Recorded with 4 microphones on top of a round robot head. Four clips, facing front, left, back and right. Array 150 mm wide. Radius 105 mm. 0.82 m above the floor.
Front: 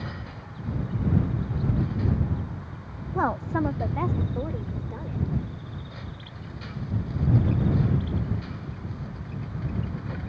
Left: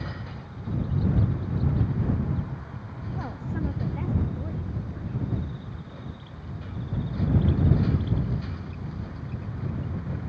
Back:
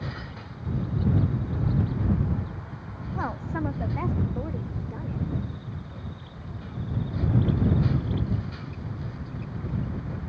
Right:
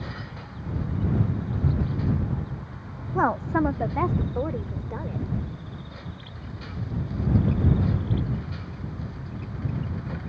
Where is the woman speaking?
60° right; by 5.2 s 85° right.